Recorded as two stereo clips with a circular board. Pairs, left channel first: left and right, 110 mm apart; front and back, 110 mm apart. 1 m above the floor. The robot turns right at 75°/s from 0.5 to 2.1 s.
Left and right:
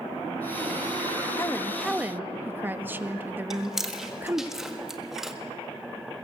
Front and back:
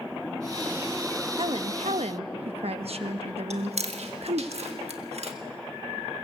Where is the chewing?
175° right, 1.5 m.